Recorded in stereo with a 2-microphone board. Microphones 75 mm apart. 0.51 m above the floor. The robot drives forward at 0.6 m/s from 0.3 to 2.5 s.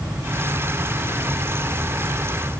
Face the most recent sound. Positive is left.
No sound to turn to.